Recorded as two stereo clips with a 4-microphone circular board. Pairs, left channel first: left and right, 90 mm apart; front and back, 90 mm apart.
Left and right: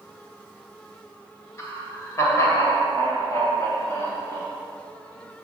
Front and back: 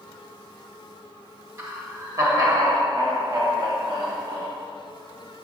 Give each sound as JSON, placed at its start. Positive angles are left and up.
{"t": 1.6, "sound": "laughter", "azimuth_deg": 135, "distance_m": 1.8}